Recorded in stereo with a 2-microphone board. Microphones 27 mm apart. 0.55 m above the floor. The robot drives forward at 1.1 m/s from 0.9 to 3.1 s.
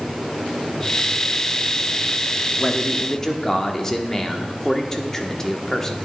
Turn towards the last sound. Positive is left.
turn(degrees=20)  # may be behind; listen again after turning